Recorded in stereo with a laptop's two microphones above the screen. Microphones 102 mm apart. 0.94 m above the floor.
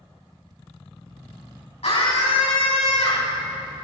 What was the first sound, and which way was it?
A scream, 85° left.